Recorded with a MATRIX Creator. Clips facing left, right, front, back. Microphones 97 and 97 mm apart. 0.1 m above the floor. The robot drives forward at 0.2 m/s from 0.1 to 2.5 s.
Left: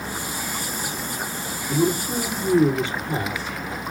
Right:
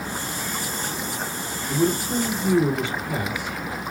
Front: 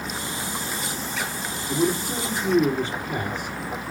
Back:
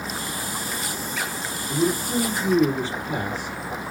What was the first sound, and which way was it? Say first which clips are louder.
A man speaking: left 1 dB, back 1 dB; 145° left.